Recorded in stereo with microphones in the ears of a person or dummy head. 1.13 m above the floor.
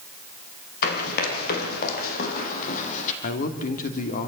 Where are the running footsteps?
55° left (ahead or behind), 3.5 m; by 3.1 s 40° left (ahead or behind), 2.5 m.